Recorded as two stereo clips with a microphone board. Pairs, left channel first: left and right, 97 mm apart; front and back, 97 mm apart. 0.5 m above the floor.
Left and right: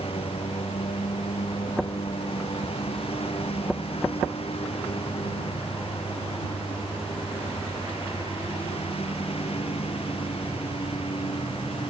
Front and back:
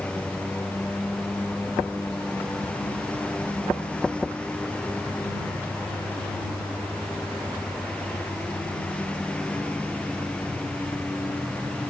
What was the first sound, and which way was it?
A lawn mower, 80° left.